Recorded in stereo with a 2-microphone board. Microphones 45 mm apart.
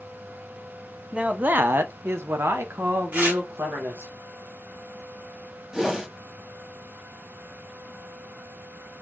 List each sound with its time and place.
1.1 s a man speaking: 35° right (ahead or behind), 0.8 m; by 4.1 s 70° right (ahead or behind), 1.6 m
3.1 s tearing paper: 45° right (ahead or behind), 2.5 m
5.7 s a whoosh: 15° right (ahead or behind), 1.3 m